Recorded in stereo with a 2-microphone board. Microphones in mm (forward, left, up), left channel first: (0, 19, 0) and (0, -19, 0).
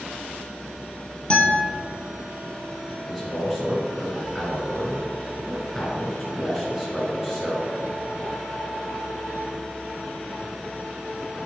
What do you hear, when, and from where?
1.3 s a guitar: 30° left (ahead or behind), 1.8 m
3.1 s a man speaking: 5° right (ahead or behind), 2 m